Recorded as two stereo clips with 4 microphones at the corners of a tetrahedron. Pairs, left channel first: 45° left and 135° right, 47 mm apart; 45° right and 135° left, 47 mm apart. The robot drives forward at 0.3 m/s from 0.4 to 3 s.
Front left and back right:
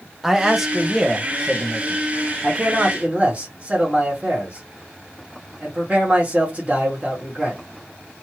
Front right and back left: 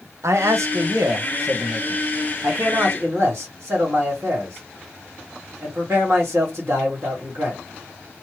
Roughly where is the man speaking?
Behind left.